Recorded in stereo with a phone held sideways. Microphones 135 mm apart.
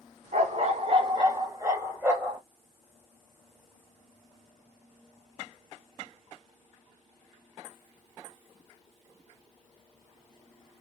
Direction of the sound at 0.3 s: 60° right (ahead or behind).